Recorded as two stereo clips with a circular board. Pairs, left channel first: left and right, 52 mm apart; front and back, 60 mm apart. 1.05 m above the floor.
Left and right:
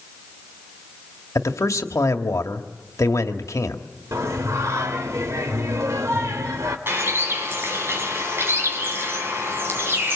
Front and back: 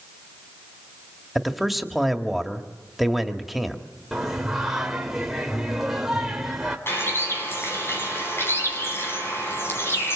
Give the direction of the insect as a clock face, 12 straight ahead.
No insect in this recording.